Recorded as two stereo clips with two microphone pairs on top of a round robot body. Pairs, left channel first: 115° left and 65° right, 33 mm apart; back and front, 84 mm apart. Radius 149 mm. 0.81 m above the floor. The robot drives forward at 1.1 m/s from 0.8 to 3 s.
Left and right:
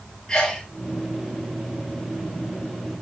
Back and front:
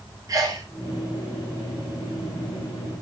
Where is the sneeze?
50° left, 4.5 m.